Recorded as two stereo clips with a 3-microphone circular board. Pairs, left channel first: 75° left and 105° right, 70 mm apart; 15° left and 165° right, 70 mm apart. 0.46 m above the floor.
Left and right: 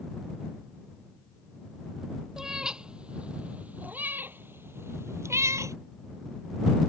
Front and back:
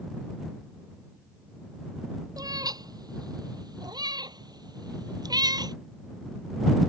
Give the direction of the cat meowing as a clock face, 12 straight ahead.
6 o'clock.